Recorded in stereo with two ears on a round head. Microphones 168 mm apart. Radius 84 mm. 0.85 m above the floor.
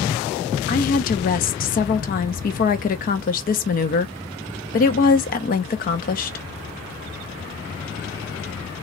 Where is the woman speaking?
45° left (ahead or behind), 0.6 m.